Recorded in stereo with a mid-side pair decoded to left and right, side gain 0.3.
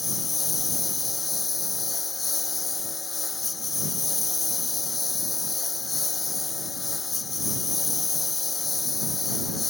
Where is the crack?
No crack in this recording.